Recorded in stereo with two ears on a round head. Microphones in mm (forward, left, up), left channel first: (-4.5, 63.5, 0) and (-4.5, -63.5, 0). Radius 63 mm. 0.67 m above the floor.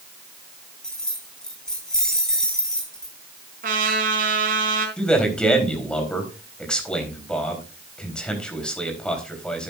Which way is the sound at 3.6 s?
65° right (ahead or behind).